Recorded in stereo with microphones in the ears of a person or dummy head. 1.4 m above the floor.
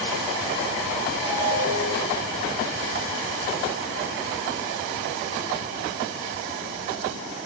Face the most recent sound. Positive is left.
turn(degrees=-20)  # may be behind; listen again after turning